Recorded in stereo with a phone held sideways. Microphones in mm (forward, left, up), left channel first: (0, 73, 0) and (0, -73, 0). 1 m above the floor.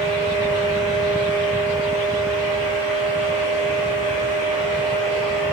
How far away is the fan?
About 1.3 m.